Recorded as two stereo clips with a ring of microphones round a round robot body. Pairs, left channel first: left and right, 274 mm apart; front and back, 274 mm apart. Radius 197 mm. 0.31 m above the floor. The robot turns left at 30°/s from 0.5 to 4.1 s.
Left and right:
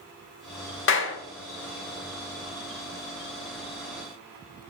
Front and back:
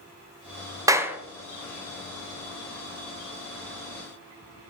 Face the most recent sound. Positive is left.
turn(degrees=10)